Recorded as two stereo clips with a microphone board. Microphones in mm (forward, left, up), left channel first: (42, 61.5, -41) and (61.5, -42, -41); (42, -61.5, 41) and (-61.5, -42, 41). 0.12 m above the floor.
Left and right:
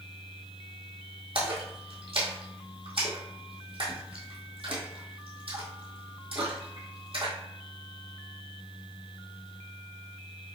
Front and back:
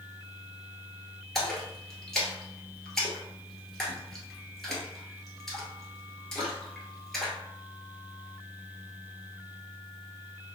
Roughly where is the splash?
Right.